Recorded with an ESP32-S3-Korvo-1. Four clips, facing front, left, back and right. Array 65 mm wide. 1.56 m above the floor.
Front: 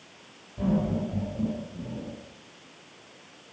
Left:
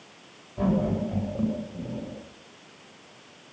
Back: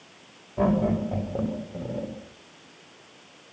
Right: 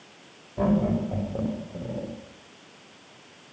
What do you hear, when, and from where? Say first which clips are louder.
0.6 s laughter: right 2 dB, back 4 dB; 160° right, 7.5 m; by 2.1 s 155° right, 9.5 m